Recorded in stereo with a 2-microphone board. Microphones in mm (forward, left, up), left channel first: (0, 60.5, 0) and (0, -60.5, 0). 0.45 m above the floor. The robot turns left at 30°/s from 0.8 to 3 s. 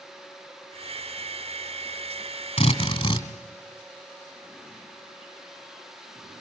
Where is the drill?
50° left (ahead or behind), 2.5 m; by 3.3 s 35° left (ahead or behind), 2.5 m.